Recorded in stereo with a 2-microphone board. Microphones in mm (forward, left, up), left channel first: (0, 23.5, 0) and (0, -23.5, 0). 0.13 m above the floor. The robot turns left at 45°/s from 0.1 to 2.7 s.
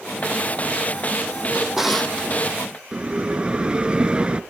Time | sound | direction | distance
1.5 | a drawer | 160° right | 2.5 m
2.9 | a bell | 20° right (ahead or behind) | 0.7 m